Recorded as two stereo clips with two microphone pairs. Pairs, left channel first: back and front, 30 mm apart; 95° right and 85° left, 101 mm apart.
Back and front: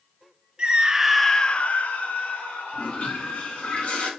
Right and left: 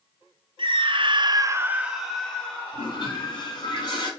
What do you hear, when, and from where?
0.6 s a scream: 55° left, 1.2 m; by 3.7 s 165° right, 3 m
2.7 s a toilet flushing: 140° right, 3 m